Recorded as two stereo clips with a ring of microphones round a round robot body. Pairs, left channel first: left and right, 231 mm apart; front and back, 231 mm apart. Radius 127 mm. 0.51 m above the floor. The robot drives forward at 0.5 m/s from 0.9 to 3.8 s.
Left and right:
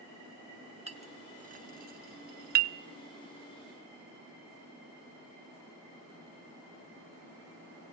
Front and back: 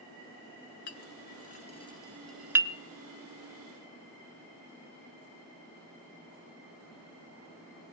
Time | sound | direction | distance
0.9 | a clink | 30° right | 1.0 m